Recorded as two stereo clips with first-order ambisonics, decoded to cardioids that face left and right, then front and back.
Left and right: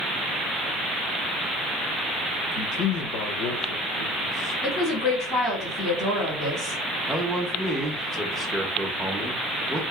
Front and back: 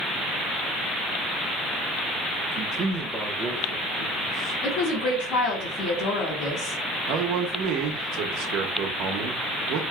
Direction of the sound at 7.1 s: 175° right.